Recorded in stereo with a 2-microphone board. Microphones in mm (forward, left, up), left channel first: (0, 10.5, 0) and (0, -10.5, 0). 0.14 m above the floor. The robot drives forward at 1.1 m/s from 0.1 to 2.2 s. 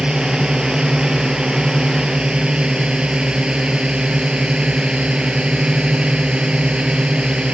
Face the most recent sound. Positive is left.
turn(degrees=-60)  # may be behind; listen again after turning